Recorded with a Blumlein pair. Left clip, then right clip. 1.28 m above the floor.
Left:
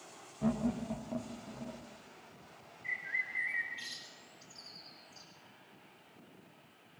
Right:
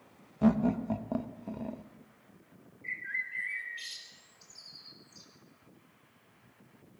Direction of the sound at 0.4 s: 25° right.